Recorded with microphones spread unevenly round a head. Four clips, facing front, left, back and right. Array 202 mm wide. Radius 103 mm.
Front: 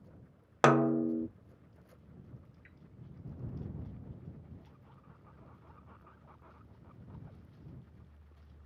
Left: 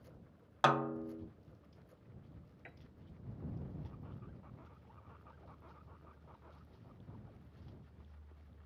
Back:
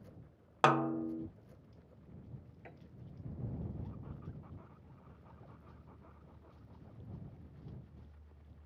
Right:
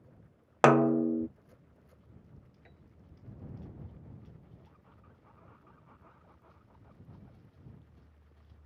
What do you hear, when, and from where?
0.6 s a snare drum: 70° right
2.6 s a piano: 170° left